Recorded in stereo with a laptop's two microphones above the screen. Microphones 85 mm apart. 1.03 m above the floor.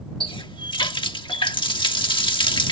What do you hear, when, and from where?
0.2 s a running tap: 90° left